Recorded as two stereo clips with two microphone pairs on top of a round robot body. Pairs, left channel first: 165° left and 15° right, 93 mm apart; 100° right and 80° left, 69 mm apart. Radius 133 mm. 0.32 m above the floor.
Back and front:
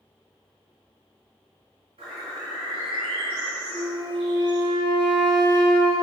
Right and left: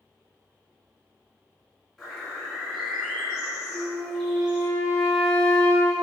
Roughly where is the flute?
Ahead.